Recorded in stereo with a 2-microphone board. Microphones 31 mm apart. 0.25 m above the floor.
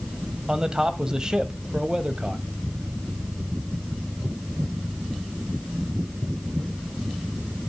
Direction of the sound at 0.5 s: 25° right (ahead or behind).